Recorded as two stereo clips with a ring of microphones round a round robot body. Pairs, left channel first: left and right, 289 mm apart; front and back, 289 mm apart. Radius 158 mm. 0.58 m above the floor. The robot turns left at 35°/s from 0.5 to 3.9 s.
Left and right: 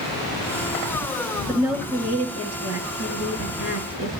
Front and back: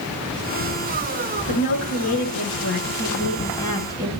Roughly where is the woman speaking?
Ahead.